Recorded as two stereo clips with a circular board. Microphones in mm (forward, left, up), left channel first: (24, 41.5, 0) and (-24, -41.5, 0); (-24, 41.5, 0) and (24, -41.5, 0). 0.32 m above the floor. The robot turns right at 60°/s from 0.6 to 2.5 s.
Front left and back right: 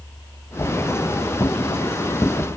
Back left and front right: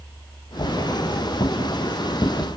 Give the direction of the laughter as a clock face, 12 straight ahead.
No laughter in this recording.